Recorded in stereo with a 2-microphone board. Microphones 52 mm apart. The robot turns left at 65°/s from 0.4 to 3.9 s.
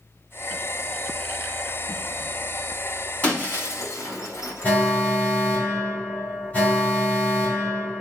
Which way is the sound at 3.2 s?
25° left (ahead or behind).